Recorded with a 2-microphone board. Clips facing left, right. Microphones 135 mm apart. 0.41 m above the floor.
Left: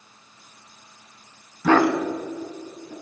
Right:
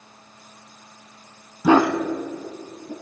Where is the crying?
No crying in this recording.